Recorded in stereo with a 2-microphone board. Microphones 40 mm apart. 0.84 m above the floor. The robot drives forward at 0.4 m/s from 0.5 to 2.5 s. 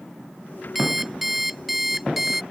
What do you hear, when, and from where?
0.8 s an alarm clock: 5° right (ahead or behind)